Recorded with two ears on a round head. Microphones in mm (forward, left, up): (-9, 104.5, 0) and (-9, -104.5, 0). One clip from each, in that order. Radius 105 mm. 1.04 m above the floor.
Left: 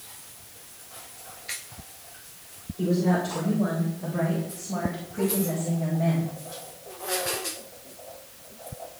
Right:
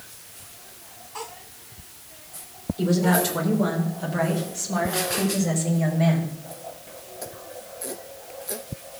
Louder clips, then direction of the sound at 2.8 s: Right 4 dB; 55° right (ahead or behind).